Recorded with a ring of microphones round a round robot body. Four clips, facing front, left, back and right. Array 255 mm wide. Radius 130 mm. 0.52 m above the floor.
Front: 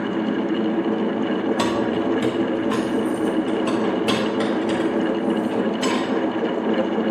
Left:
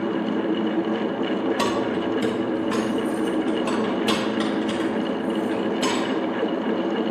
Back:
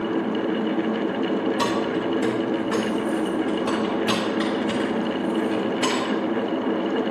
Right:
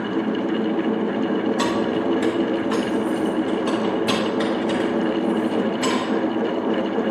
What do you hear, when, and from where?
1.6 s keys jangling: 30° left, 2.5 m; by 6.1 s 60° left, 5.5 m